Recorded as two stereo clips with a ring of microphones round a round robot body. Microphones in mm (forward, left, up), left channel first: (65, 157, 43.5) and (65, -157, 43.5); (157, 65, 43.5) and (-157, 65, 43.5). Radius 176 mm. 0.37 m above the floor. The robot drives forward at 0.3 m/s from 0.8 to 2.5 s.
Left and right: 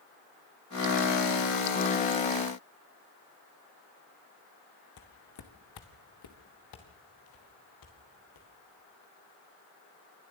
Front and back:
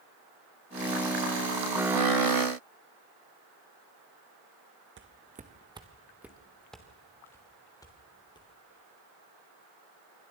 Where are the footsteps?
130° left, 1.6 m; by 8.5 s 75° left, 4.5 m.